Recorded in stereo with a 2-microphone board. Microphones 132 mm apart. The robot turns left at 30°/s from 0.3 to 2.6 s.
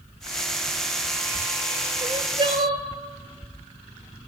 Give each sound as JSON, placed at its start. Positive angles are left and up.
{"t": 2.0, "sound": "crying", "side_deg": -50, "distance_m": 0.6}